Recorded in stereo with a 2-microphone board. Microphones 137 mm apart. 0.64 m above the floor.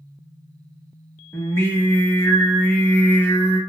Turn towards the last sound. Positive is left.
turn(degrees=20)  # may be behind; listen again after turning